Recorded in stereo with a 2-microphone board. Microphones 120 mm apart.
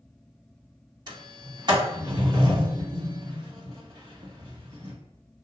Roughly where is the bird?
No bird in this recording.